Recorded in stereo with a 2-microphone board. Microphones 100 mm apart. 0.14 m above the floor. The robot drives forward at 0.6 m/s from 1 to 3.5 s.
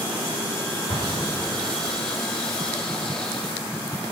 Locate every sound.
0.9 s an explosion: 45° left (ahead or behind), 3.5 m; by 1.9 s 40° left (ahead or behind), 4 m